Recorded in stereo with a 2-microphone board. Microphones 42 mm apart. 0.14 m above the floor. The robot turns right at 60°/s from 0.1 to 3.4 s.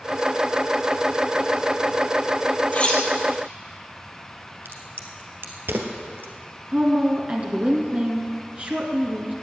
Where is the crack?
70° right (ahead or behind), 1.8 m.